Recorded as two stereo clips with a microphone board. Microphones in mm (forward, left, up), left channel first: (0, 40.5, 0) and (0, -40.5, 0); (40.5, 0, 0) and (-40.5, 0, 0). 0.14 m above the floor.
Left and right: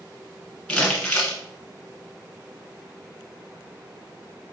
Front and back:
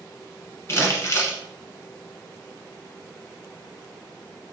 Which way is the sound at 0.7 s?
20° left.